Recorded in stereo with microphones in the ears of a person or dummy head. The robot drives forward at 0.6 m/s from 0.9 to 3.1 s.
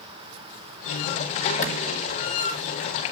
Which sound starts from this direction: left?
A clap, at 1.6 s.